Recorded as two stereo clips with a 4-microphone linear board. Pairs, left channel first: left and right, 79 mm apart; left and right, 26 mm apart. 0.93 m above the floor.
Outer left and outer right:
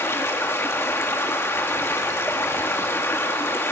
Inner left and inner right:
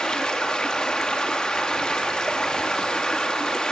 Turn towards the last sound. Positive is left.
turn(degrees=30)  # may be behind; listen again after turning